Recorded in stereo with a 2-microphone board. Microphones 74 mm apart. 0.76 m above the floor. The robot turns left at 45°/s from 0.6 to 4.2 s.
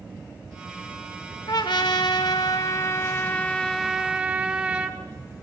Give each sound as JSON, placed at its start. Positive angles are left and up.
{"t": 1.5, "sound": "a trumpet", "azimuth_deg": 105, "distance_m": 0.9}